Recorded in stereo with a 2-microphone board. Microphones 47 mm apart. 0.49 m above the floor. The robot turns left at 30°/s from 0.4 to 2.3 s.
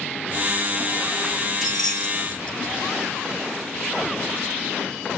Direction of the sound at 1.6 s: 5° right (ahead or behind).